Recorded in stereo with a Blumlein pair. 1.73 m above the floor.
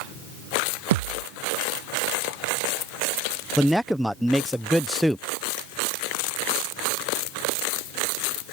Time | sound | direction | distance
0.9 | a thud | 55° right | ?
3.6 | a man speaking | straight ahead | ?